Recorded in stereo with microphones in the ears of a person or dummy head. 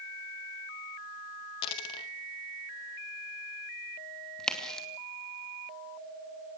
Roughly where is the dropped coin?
Left.